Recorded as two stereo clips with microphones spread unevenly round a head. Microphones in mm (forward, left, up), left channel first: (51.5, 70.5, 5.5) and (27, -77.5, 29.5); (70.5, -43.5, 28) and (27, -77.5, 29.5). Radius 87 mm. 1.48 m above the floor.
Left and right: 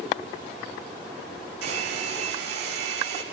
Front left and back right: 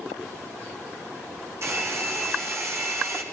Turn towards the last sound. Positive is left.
turn(degrees=-110)